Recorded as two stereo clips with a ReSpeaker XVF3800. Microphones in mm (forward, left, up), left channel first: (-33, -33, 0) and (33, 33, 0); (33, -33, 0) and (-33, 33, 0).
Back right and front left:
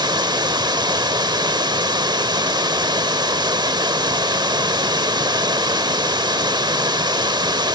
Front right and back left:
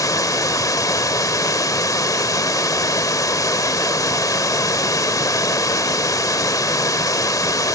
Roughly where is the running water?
Ahead.